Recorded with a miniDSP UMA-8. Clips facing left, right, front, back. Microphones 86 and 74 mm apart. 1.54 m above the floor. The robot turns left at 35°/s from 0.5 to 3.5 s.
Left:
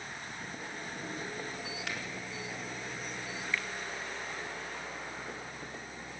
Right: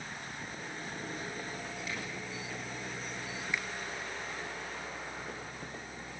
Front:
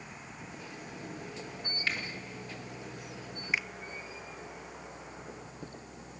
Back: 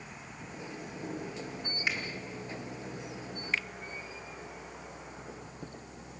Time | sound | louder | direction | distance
1.9 | a finger snap | left 2 dB, back 1 dB | 110° left | 4.5 m
3.5 | a finger snap | left 1 dB, front 1 dB | 50° right | 0.7 m